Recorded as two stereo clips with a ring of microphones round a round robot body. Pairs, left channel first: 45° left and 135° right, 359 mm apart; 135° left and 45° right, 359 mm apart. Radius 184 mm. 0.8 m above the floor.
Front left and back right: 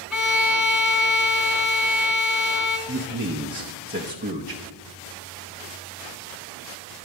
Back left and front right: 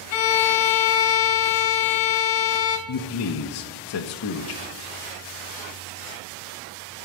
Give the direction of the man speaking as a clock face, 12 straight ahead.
6 o'clock.